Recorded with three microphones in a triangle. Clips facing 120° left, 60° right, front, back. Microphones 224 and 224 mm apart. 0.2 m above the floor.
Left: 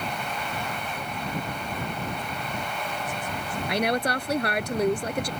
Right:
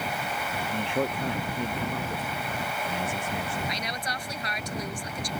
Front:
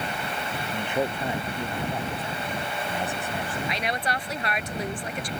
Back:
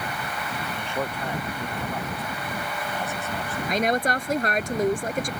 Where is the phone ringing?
I don't hear a phone ringing.